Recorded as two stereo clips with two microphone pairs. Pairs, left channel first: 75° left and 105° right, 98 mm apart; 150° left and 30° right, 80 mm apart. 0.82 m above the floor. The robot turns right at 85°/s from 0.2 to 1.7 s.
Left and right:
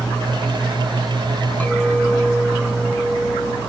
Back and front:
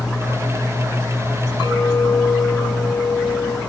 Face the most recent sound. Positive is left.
turn(degrees=155)